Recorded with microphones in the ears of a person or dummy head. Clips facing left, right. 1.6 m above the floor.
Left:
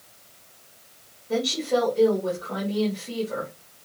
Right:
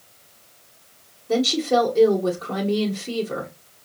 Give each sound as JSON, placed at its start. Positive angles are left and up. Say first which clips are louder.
{"t": 1.3, "sound": "a woman speaking", "louder": "right 4 dB", "side_deg": -60, "distance_m": 1.4}